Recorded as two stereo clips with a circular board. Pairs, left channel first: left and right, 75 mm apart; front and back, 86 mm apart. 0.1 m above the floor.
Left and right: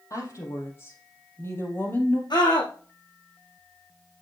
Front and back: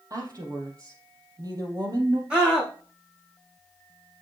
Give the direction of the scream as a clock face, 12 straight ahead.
9 o'clock.